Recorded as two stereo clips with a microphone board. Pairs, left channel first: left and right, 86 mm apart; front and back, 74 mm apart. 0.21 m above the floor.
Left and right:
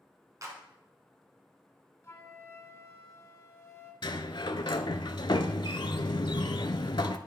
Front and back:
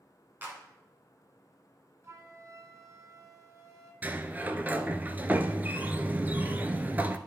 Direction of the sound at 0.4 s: 125° right.